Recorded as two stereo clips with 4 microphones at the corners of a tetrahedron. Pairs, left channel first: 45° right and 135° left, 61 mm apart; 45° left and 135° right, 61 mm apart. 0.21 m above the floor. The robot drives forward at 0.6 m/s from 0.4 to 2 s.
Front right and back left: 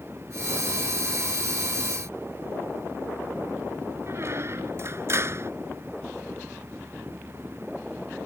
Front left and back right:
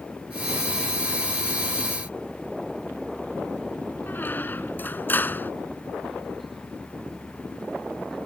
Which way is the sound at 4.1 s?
100° left.